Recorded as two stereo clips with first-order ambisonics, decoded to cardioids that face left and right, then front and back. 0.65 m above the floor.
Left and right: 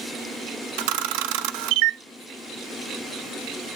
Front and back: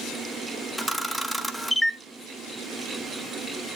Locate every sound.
0.8 s a camera shutter: 90° right, 0.7 m